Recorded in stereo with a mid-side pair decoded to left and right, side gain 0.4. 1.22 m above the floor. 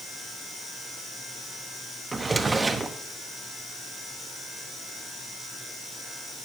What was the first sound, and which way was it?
A drawer, 30° right.